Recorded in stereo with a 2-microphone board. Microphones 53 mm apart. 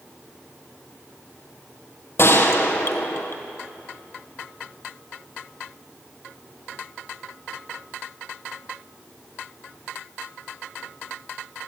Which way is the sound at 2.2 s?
55° left (ahead or behind).